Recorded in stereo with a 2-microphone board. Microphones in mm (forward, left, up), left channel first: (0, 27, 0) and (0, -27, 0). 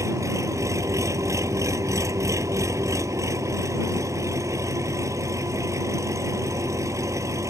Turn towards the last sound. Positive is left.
turn(degrees=-75)  # may be behind; listen again after turning